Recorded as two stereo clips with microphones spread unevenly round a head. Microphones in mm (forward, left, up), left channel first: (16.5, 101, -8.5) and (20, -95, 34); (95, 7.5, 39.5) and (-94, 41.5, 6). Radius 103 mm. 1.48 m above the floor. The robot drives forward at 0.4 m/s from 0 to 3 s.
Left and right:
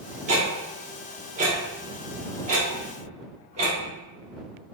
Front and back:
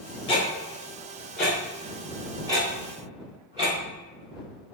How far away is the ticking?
About 1.4 m.